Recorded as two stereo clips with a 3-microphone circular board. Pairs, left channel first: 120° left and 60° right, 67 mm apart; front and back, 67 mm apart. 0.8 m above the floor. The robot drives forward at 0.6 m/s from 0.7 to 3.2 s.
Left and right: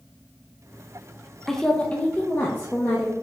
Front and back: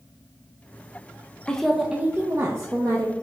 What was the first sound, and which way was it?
A woman speaking, 40° left.